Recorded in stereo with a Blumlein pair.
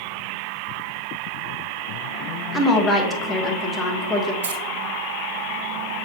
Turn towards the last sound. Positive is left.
turn(degrees=-60)